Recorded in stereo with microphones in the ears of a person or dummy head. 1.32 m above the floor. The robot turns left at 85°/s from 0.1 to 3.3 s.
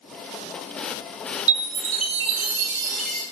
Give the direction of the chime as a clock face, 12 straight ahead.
12 o'clock.